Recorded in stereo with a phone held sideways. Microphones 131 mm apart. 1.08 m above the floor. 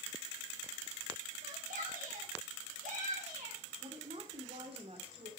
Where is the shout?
85° right, 5.5 m; by 3.6 s 75° right (ahead or behind), 4.5 m.